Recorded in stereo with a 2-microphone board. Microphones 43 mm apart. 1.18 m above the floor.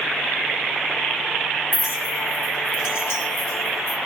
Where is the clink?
70° left (ahead or behind), 1.1 m.